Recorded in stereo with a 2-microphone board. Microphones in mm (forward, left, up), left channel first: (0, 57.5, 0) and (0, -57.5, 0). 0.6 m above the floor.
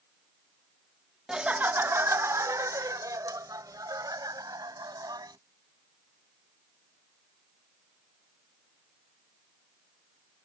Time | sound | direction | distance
1.3 | laughter | 5° right (ahead or behind) | ?